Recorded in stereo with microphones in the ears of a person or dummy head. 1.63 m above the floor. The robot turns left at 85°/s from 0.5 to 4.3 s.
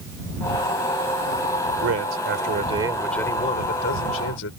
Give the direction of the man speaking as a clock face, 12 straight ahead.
2 o'clock.